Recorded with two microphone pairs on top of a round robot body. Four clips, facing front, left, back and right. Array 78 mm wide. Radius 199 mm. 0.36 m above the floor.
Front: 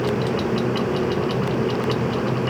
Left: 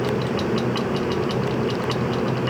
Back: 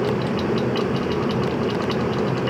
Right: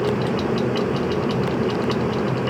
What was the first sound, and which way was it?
Only background noise.